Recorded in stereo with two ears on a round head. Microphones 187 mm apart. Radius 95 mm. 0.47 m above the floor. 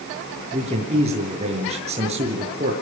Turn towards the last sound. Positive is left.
turn(degrees=-30)  # may be behind; listen again after turning